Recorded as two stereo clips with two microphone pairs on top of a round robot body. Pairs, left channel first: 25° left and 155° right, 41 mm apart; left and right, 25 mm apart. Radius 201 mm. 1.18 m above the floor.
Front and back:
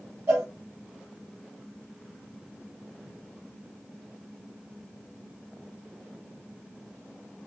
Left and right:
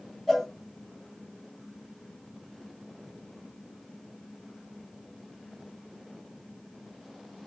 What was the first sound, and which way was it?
A cowbell, 165° left.